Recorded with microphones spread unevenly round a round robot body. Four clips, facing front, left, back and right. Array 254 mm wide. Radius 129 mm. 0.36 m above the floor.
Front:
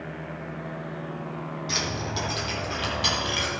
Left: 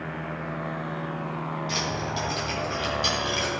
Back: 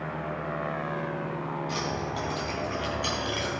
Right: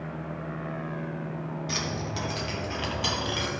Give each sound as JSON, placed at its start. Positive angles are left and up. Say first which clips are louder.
{"t": 1.7, "sound": "keys jangling", "louder": "left 3 dB, even", "azimuth_deg": -40, "distance_m": 2.5}